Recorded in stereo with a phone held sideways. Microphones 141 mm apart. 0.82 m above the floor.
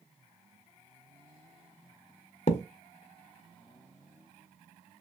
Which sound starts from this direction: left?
A thud, at 2.5 s.